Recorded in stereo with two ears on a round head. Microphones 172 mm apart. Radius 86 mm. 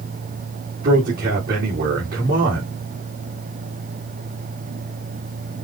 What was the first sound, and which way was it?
A man speaking, 50° right (ahead or behind).